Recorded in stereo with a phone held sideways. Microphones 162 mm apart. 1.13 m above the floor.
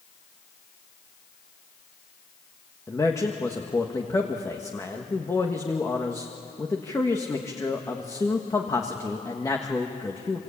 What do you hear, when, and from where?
2.9 s a man speaking: 20° left (ahead or behind), 1.6 m